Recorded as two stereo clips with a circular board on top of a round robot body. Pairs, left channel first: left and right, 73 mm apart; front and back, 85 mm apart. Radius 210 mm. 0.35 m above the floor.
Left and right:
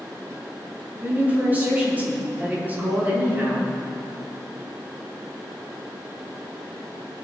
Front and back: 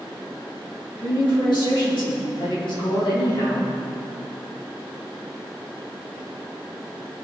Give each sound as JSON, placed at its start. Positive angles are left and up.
{"t": 1.0, "sound": "a woman speaking", "azimuth_deg": -25, "distance_m": 3.5}